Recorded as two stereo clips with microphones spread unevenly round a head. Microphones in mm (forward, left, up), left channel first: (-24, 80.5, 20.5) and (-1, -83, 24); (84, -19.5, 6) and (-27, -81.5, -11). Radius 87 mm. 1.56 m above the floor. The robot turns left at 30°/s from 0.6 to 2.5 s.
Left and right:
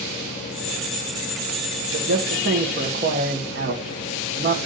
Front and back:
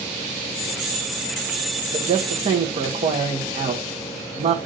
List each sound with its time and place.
1.9 s a man speaking: 100° right, 0.8 m; by 4.6 s 115° right, 0.8 m